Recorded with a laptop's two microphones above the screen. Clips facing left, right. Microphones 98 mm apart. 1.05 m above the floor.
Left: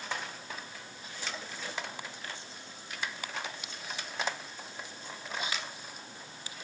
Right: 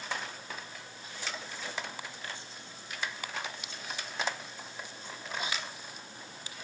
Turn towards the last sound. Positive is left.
No sound to turn to.